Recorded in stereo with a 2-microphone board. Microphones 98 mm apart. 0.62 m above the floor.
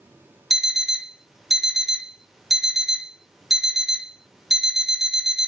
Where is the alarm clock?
5° right (ahead or behind), 0.6 m.